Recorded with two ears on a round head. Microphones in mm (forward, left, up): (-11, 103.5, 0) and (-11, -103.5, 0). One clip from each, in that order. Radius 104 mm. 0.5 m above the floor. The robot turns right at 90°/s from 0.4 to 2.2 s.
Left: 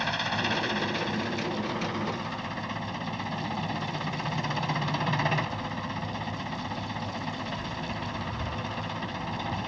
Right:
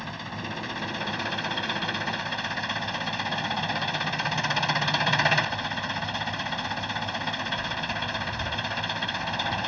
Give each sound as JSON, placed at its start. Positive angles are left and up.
{"t": 0.0, "sound": "an engine running", "azimuth_deg": 145}